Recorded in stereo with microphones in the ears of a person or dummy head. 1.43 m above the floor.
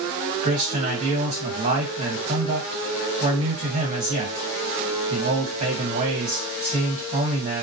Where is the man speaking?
40° right (ahead or behind), 1.3 m.